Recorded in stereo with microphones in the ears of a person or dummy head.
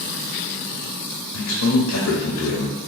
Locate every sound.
1.3 s a man speaking: 75° left (ahead or behind), 0.8 m